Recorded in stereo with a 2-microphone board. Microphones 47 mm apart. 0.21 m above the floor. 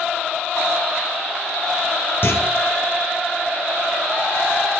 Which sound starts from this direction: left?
A clunk, at 2.2 s.